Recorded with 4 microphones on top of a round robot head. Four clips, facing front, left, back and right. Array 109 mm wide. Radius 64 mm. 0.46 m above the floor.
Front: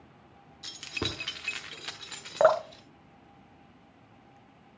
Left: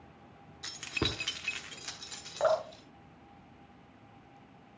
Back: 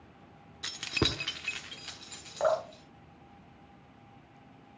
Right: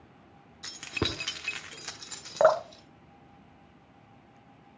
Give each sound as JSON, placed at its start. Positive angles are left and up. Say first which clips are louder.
{"t": 0.6, "sound": "keys jangling", "louder": "right 3 dB, back 4 dB", "azimuth_deg": -170, "distance_m": 1.0}
{"t": 2.4, "sound": "dripping", "louder": "right 6 dB, front 6 dB", "azimuth_deg": -45, "distance_m": 0.7}